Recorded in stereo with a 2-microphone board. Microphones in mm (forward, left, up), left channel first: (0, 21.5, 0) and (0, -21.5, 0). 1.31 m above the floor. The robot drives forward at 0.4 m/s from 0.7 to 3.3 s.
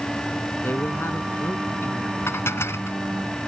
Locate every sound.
0.6 s a man speaking: 65° left (ahead or behind)
2.3 s dishes clattering: 80° left